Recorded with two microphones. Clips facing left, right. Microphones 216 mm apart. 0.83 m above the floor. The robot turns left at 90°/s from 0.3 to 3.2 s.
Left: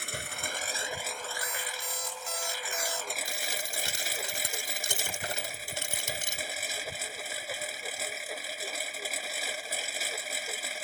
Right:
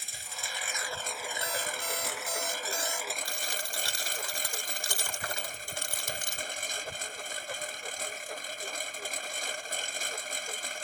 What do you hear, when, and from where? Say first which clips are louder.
0.0 s a lawn mower: left 8 dB; 75° left; by 10.8 s 175° left
1.4 s an alarm clock: right 4 dB; 65° right; by 3.1 s 145° left
3.2 s a dropped coin: left 1 dB; 25° left (ahead or behind)